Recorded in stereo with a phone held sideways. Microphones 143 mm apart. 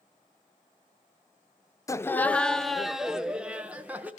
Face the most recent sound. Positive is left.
turn(degrees=-10)  # may be behind; listen again after turning